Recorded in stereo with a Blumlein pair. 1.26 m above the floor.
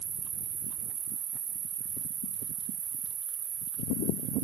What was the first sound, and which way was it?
An insect, 65° right.